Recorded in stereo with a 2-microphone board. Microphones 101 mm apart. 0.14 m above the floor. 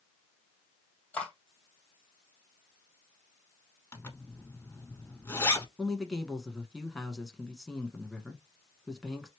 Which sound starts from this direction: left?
A zipper, at 3.9 s.